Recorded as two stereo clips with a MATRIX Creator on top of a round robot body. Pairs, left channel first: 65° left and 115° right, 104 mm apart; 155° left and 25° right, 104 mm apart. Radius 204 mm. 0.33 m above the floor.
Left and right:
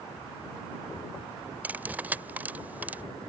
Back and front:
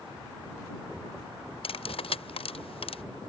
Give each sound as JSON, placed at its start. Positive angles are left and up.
{"t": 1.6, "sound": "cutlery clinking", "azimuth_deg": 175}